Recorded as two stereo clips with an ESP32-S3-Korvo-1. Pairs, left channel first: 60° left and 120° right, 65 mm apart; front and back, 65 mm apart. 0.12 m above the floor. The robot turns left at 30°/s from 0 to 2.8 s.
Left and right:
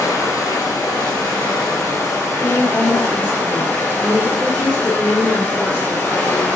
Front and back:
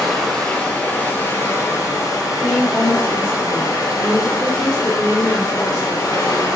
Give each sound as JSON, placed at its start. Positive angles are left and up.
{"t": 0.0, "sound": "running water", "azimuth_deg": 85, "distance_m": 1.2}
{"t": 2.2, "sound": "a woman speaking", "azimuth_deg": 50, "distance_m": 1.8}